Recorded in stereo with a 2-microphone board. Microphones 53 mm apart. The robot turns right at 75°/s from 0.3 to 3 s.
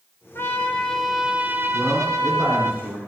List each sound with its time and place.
0.3 s a trumpet: 125° left, 1.1 m; by 2.7 s 55° right, 1.1 m
1.7 s a man speaking: 170° left, 5 m; by 3.0 s 95° right, 5 m